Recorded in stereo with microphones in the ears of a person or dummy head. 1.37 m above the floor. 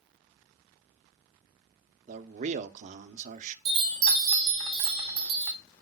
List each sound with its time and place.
2.1 s a man speaking: 40° right (ahead or behind), 0.7 m
3.6 s a chime: 25° right (ahead or behind), 1.5 m